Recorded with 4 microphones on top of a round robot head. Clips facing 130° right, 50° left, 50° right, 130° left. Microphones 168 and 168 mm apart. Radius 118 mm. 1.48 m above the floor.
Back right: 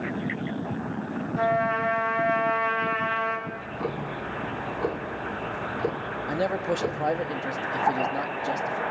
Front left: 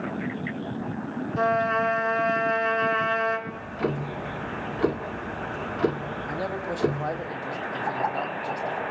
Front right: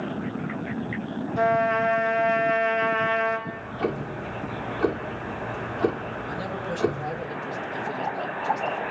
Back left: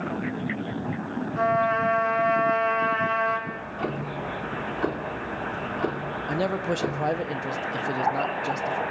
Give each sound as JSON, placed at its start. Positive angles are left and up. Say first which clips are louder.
{"t": 1.4, "sound": "a trumpet", "louder": "front left 1 dB, front right 2 dB", "azimuth_deg": 5, "distance_m": 3.0}
{"t": 3.5, "sound": "ticking", "louder": "front left 3 dB, front right 2 dB", "azimuth_deg": 35, "distance_m": 1.7}
{"t": 6.3, "sound": "a man speaking", "louder": "back right 6 dB, back left 8 dB", "azimuth_deg": 165, "distance_m": 1.2}